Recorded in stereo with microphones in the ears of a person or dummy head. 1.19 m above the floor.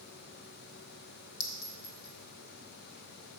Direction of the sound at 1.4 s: 50° left (ahead or behind).